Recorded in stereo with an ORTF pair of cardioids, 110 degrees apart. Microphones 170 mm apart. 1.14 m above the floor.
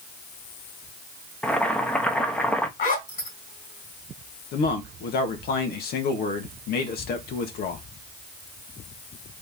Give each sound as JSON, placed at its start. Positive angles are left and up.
{"t": 1.4, "sound": "boiling", "azimuth_deg": 5, "distance_m": 0.9}
{"t": 2.8, "sound": "a zipper", "azimuth_deg": 60, "distance_m": 2.5}
{"t": 4.5, "sound": "a man speaking", "azimuth_deg": 70, "distance_m": 1.4}